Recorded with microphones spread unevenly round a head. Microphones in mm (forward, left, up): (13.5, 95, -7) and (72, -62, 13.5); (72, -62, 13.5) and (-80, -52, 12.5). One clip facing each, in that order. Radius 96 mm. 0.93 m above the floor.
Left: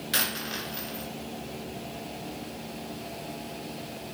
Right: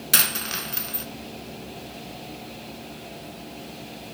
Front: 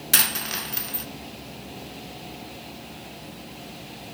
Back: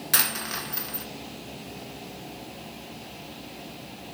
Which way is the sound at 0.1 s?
65° right.